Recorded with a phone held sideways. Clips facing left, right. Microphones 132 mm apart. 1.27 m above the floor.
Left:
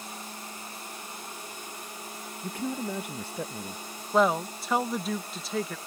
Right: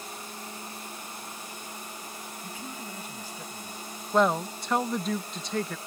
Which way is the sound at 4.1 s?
Centre (ahead or behind).